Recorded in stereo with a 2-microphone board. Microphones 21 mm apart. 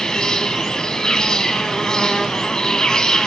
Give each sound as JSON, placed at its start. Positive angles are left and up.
{"t": 0.0, "sound": "an insect", "side_deg": 40, "distance_m": 0.9}